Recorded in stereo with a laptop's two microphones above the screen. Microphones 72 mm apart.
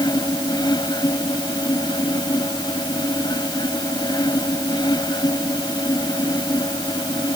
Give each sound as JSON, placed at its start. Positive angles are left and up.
{"t": 0.0, "sound": "a fan", "side_deg": 85}